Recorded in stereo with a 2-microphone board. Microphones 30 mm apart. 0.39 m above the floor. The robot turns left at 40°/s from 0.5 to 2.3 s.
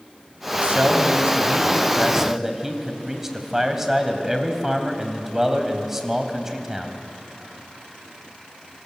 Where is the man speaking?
100° right, 3 m; by 7.0 s 165° right, 3 m.